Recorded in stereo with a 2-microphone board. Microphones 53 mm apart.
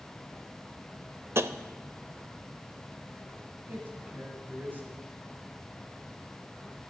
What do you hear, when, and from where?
1.4 s tapping: 55° right (ahead or behind), 0.6 m
3.7 s a man speaking: 35° right (ahead or behind), 4 m